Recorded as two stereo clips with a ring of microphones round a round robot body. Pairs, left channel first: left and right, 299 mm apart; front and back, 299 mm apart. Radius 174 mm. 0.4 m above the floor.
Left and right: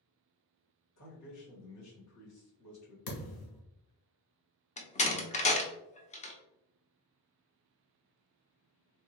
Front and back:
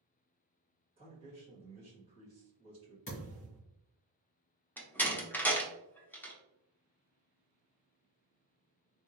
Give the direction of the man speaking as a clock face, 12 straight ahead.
8 o'clock.